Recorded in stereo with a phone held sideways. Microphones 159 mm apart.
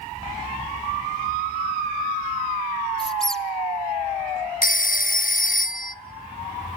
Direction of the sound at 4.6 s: 65° left (ahead or behind).